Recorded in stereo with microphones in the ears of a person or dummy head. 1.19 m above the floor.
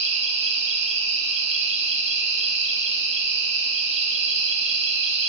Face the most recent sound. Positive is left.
turn(degrees=-45)  # may be behind; listen again after turning